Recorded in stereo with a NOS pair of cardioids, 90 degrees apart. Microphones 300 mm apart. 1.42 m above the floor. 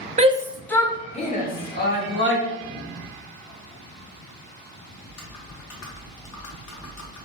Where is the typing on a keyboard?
55° left, 1.0 m.